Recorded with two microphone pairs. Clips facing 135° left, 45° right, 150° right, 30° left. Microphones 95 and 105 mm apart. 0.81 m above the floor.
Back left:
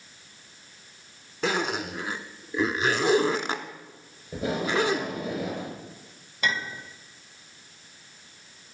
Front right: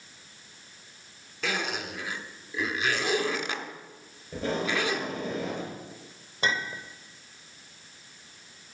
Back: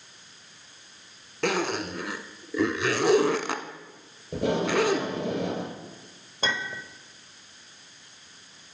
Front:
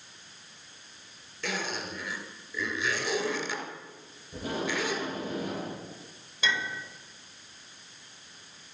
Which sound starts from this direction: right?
A clink, at 6.4 s.